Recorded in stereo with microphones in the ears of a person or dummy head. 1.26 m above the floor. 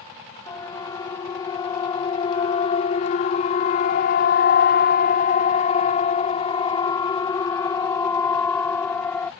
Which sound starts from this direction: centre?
A siren, at 0.5 s.